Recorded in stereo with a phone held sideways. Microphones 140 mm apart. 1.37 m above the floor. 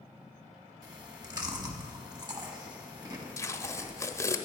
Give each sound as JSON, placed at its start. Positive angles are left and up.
{"t": 0.8, "sound": "chewing", "side_deg": -30, "distance_m": 0.9}
{"t": 3.4, "sound": "tape being pulled", "side_deg": 20, "distance_m": 0.5}